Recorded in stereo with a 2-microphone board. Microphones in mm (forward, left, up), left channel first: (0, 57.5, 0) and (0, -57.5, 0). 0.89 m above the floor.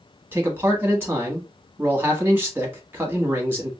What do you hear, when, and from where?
0.3 s a man speaking: 15° right (ahead or behind), 1.3 m